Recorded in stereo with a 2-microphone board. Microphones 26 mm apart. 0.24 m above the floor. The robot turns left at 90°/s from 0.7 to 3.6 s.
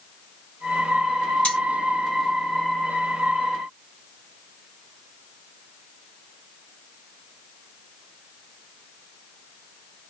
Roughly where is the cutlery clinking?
Left.